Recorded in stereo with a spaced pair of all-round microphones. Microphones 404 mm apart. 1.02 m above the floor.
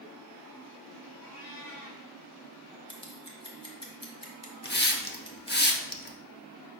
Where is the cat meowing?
80° left, 3 m.